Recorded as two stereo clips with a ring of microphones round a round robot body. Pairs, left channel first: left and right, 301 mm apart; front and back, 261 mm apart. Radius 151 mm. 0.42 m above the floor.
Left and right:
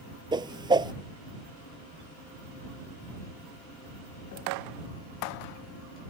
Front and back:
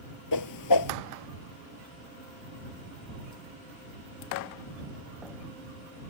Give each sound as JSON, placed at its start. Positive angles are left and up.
{"t": 0.3, "sound": "a whoosh", "azimuth_deg": -15}